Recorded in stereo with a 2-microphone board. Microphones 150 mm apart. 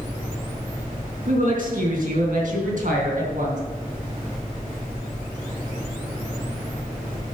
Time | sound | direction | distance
1.3 | a woman speaking | 65° right (ahead or behind) | 4 m